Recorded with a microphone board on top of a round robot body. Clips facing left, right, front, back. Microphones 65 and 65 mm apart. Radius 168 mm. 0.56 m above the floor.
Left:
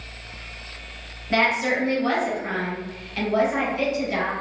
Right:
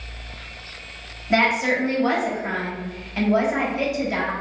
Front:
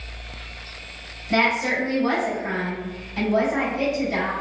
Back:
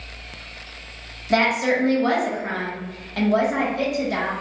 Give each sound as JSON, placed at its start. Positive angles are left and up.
{"t": 1.3, "sound": "a woman speaking", "azimuth_deg": -160, "distance_m": 1.7}